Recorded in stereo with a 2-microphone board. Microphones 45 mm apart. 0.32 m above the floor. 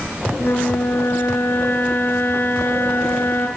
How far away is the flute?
About 5 m.